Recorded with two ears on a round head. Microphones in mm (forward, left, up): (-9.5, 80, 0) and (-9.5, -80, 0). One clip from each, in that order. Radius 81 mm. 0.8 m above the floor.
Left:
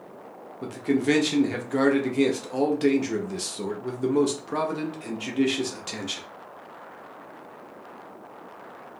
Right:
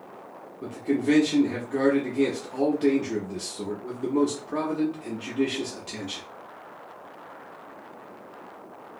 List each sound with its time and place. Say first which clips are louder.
0.6 s a man speaking: left 1 dB; 30° left (ahead or behind), 0.5 m